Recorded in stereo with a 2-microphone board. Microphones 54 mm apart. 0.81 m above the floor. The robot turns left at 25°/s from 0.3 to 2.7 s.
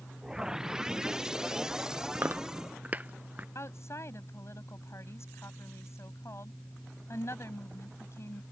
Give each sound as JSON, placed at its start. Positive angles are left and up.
{"t": 2.1, "sound": "chewing", "side_deg": -45}
{"t": 3.5, "sound": "a woman speaking", "side_deg": 60}